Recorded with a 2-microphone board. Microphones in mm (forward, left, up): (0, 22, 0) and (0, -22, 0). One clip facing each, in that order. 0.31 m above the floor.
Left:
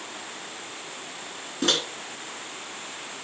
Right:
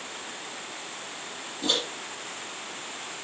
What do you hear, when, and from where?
1.6 s a microwave: 60° left (ahead or behind), 2.5 m